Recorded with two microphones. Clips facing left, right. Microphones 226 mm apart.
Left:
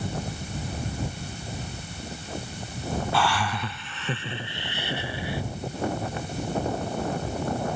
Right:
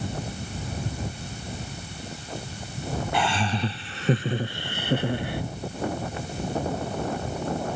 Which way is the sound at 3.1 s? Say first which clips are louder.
Right 3 dB; 20° right (ahead or behind).